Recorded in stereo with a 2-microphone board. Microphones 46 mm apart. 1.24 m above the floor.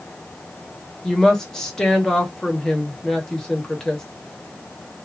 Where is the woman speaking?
10° left (ahead or behind), 1.5 m.